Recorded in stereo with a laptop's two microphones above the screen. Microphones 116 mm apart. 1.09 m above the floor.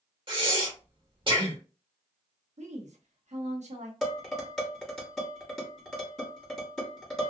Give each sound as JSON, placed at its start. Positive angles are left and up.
{"t": 0.3, "sound": "breathing", "side_deg": -45, "distance_m": 1.2}
{"t": 2.6, "sound": "a woman speaking", "side_deg": -80, "distance_m": 0.8}
{"t": 4.0, "sound": "dishes clattering", "side_deg": 0, "distance_m": 1.4}